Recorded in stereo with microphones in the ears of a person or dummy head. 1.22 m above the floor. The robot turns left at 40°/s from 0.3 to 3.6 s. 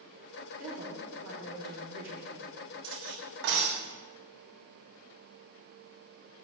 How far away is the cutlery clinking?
About 1.7 m.